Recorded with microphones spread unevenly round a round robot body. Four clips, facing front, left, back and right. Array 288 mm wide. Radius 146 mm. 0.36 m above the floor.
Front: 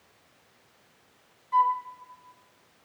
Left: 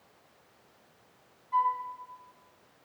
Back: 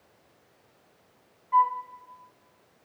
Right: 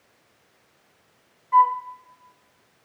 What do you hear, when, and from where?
1.5 s a flute: 80° right, 0.7 m